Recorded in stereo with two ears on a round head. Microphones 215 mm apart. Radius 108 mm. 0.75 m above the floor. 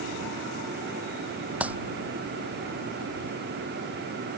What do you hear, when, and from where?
1.6 s a clap: 5° right (ahead or behind)